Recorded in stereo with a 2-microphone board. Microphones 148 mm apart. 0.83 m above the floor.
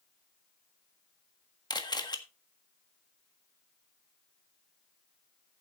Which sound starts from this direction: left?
A camera shutter, at 1.7 s.